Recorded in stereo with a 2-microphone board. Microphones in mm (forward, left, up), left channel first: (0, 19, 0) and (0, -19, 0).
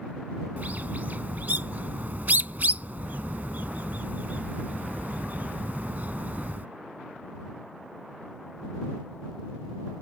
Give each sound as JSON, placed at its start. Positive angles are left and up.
{"t": 0.6, "sound": "a bird", "side_deg": -50}